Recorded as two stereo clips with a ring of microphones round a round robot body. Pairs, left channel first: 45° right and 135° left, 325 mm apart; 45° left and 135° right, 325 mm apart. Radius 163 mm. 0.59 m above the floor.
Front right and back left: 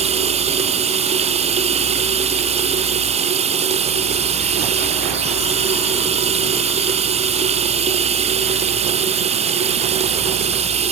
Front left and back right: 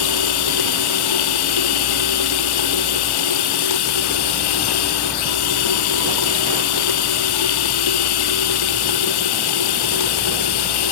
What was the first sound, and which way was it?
Running water, 60° left.